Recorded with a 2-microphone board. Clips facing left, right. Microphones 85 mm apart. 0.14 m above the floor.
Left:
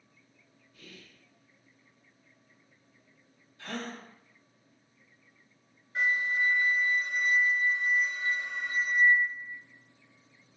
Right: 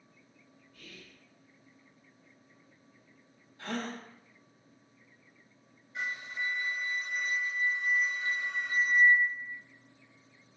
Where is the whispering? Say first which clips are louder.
Left 1 dB; 25° left (ahead or behind), 1.7 m.